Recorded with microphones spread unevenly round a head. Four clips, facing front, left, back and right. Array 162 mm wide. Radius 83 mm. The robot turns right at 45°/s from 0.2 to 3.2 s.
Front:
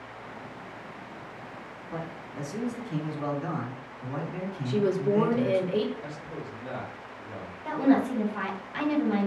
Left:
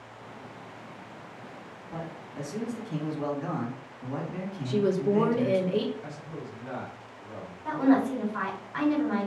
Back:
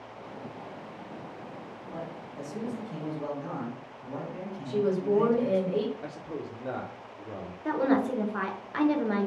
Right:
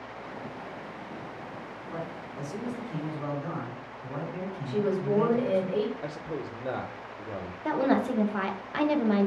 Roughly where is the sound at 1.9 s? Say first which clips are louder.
Even, front 3 dB; ahead.